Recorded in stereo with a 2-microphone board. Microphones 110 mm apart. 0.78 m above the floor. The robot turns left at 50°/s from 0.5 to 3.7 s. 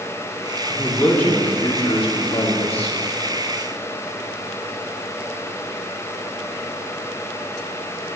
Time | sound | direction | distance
0.7 | a man speaking | 175° right | 2 m